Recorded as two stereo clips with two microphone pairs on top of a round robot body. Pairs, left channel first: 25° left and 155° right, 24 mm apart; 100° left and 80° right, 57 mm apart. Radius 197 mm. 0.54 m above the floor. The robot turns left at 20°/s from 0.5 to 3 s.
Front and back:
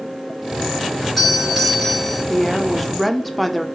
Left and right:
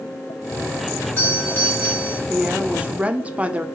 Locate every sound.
1.0 s a doorbell: 115° left, 2 m; by 2.2 s 90° left, 2 m
2.3 s a woman speaking: 60° right, 0.6 m; by 3.6 s 75° right, 0.6 m